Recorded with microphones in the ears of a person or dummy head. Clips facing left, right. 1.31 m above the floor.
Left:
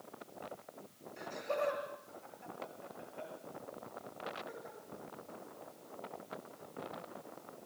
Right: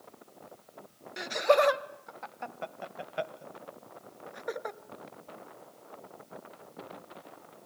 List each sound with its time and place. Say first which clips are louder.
1.2 s laughter: right 13 dB; 70° right (ahead or behind), 1.4 m